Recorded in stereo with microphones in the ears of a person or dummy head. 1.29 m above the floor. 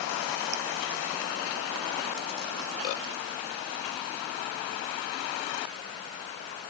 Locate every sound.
Only background noise.